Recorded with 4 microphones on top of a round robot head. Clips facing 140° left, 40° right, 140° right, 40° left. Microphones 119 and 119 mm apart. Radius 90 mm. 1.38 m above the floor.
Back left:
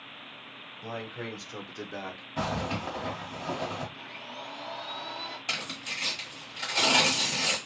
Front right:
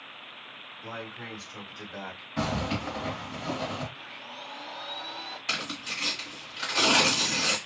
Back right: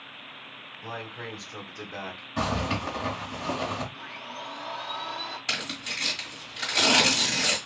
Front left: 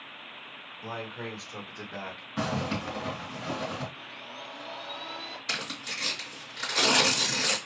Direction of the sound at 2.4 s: 150° right.